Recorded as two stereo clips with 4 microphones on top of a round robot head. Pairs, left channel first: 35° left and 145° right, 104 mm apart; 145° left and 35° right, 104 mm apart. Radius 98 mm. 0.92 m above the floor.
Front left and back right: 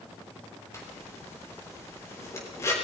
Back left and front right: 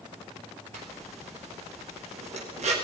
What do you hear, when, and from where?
0.7 s a zipper: 30° right, 4.5 m